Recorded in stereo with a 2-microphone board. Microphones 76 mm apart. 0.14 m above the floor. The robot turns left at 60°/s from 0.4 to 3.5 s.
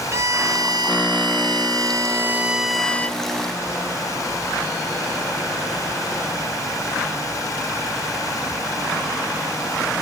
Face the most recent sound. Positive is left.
turn(degrees=135)